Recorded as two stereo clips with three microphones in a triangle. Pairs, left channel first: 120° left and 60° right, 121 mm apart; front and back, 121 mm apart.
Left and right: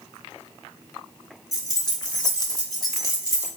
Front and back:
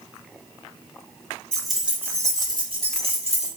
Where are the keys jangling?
75° left, 0.9 m; by 3.5 s straight behind, 1.4 m.